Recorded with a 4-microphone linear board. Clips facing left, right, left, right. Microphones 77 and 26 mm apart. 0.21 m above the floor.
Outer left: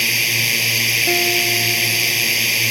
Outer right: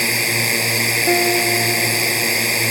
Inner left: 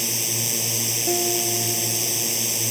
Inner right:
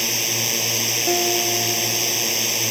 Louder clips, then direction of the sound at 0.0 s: Outer right 2 dB, inner right 4 dB; 30° right (ahead or behind).